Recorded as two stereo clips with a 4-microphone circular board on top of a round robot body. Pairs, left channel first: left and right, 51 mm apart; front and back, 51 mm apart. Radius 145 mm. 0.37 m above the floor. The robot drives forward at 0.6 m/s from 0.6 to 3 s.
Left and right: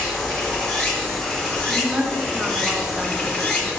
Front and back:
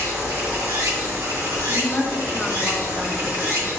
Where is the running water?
170° left, 1.9 m; by 3.8 s 175° left, 3.5 m.